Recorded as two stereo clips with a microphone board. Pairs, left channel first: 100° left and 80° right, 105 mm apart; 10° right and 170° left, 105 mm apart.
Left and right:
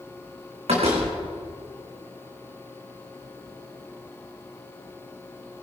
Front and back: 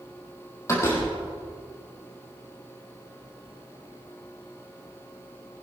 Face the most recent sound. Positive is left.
turn(degrees=-75)